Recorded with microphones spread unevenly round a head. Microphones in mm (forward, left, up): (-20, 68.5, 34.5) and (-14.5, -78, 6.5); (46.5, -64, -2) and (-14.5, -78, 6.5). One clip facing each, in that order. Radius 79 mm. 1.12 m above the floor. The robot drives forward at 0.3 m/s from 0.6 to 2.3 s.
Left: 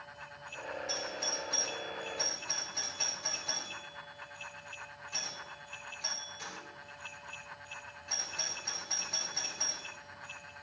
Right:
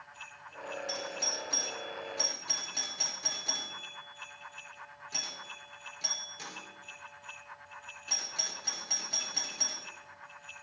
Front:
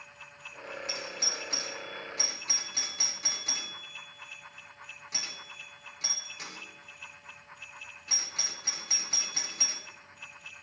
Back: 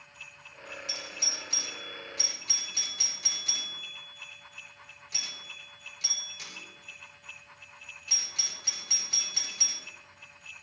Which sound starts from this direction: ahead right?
A doorbell, at 0.9 s.